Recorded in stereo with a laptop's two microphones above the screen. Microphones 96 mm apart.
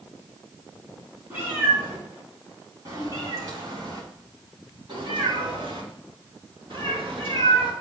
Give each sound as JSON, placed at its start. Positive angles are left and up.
{"t": 1.3, "sound": "a cat meowing", "side_deg": -20, "distance_m": 3.5}